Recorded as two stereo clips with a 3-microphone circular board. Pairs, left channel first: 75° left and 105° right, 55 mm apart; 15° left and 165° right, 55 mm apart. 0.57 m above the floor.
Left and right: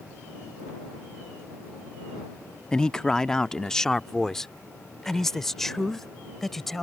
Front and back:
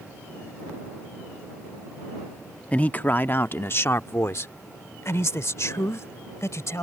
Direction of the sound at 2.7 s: 20° left.